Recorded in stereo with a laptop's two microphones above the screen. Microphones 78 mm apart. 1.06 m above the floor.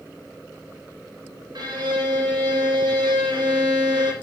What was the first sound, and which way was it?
A violin, 70° right (ahead or behind).